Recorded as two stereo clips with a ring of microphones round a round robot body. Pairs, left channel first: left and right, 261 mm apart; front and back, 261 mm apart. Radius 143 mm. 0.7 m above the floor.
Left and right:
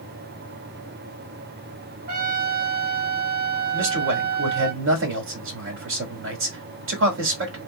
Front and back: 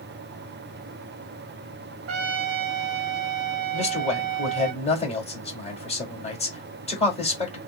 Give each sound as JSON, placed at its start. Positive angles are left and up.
{"t": 2.1, "sound": "a trumpet", "azimuth_deg": -150, "distance_m": 0.8}
{"t": 3.7, "sound": "a man speaking", "azimuth_deg": -65, "distance_m": 1.9}